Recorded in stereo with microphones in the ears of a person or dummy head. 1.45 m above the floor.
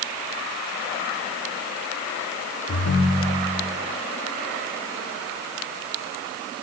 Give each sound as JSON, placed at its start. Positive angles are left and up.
{"t": 2.7, "sound": "a ringtone", "side_deg": 65, "distance_m": 2.0}